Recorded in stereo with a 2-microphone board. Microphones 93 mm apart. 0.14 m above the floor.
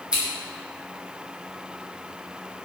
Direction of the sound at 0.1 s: 10° right (ahead or behind).